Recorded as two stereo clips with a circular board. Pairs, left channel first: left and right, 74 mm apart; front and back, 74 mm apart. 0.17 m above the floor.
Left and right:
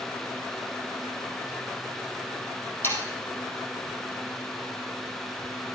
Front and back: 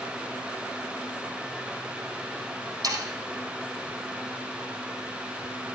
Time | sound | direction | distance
2.8 | sawing | 150° left | 4 m